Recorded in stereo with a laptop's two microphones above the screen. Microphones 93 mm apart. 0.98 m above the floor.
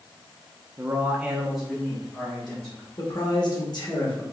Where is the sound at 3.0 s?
45° left (ahead or behind), 1.3 m.